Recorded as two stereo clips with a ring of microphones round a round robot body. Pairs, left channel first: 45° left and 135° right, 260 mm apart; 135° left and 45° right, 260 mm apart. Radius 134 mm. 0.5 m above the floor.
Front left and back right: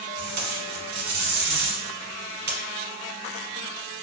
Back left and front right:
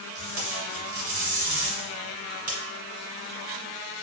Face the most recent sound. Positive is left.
turn(degrees=-85)